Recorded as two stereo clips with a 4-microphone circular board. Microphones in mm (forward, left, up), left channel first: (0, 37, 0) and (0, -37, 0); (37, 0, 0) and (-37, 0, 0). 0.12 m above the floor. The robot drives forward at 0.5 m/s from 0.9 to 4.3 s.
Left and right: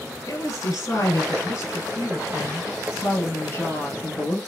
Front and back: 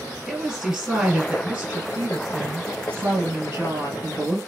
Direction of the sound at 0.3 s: 110° left.